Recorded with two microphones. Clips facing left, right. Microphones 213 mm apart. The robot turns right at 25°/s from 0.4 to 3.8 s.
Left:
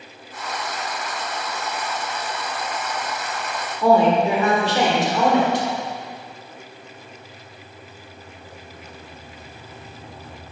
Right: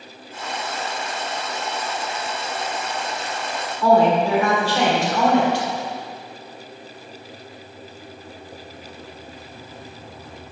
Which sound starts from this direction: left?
A woman speaking, at 3.8 s.